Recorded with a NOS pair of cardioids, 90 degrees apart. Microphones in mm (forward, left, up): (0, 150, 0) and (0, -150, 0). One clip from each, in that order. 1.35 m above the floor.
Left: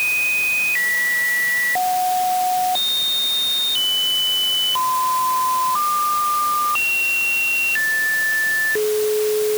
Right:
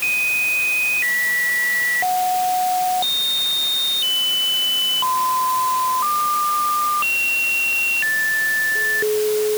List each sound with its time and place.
Only background noise.